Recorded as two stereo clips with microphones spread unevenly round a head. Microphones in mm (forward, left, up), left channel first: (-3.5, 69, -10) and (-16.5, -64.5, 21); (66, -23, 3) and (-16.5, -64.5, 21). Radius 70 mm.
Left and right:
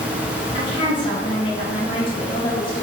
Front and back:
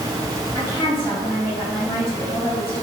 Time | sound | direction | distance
0.5 | a woman speaking | 140° left | 1.8 m